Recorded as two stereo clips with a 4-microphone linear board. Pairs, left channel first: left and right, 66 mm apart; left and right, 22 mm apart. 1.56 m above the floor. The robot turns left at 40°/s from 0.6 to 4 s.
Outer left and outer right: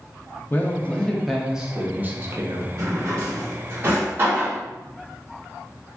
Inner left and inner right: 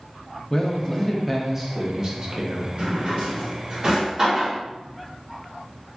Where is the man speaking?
30° left, 0.6 m; by 2.7 s 55° right, 0.6 m.